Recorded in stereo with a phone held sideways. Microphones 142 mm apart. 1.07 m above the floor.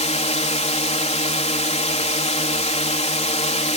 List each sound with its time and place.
0.0 s a drone: 50° left (ahead or behind)